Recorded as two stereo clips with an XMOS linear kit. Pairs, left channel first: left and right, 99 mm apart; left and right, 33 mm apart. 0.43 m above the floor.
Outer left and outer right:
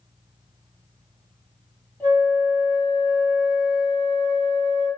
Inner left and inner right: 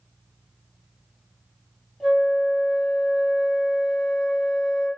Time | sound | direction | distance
2.0 | a flute | 20° left (ahead or behind) | 1.0 m